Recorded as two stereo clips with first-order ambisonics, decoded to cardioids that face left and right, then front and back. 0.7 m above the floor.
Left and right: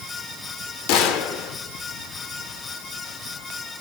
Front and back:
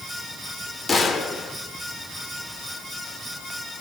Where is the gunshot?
75° left, 1.1 m.